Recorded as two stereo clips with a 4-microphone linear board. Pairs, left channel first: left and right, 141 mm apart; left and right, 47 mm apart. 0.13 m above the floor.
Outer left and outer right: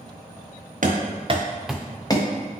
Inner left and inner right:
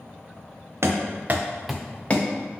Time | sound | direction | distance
0.8 | running footsteps | 70° right (ahead or behind) | 1.0 m